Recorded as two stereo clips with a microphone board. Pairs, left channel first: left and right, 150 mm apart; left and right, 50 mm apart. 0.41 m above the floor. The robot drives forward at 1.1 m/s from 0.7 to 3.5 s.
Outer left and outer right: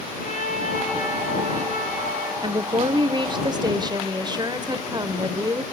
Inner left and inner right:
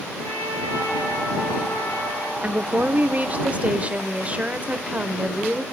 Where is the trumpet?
60° left (ahead or behind), 7 m; by 2.3 s 75° left (ahead or behind), 6.5 m.